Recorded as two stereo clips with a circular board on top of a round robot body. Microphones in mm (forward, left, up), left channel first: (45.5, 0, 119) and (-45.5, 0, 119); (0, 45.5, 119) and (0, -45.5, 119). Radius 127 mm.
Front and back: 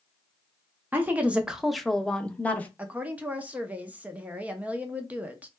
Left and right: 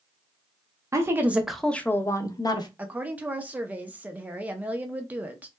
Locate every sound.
0.9 s a woman speaking: 120° right, 0.8 m; by 2.7 s 70° left, 1.0 m
2.8 s a woman speaking: 135° right, 0.7 m